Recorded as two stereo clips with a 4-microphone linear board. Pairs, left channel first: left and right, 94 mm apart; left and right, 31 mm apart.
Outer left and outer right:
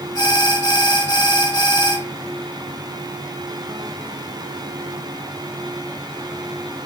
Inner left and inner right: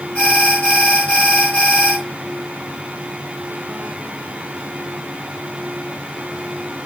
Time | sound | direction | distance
0.1 | an alarm | 50° left (ahead or behind) | 2 m